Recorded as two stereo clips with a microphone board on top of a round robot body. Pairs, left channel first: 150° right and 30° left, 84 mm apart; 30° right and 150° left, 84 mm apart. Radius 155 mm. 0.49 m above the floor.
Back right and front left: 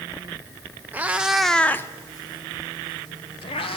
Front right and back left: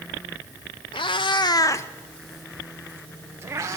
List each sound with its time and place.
0.9 s a cat meowing: 40° right, 1.6 m; by 3.8 s 155° right, 2.5 m